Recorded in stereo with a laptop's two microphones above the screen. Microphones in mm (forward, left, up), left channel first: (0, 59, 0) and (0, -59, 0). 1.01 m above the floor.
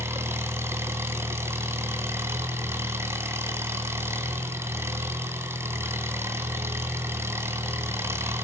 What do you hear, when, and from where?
0.0 s an engine running: 20° right (ahead or behind), 2 m